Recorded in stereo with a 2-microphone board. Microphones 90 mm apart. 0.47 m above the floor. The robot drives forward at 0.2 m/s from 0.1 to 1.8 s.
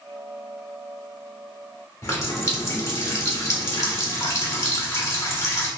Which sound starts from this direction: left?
A running tap, at 2.0 s.